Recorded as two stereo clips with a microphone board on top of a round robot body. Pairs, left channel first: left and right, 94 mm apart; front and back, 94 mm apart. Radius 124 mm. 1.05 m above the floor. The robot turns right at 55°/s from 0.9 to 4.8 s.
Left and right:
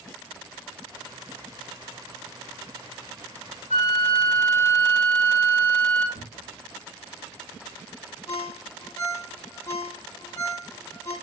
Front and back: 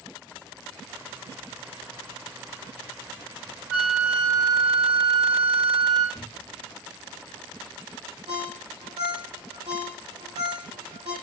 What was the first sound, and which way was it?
A flute, 105° left.